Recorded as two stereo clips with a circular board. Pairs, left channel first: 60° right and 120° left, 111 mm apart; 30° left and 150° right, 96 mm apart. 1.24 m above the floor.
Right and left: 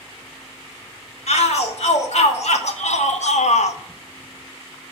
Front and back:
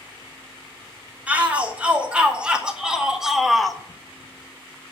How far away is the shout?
About 3 m.